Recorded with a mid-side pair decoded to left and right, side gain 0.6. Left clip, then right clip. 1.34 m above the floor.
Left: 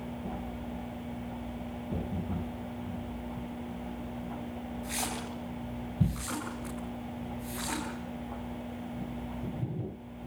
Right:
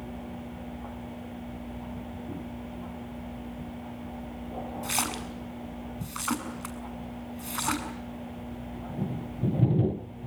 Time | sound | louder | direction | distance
4.8 | a splash | right 5 dB | 60° right | 7 m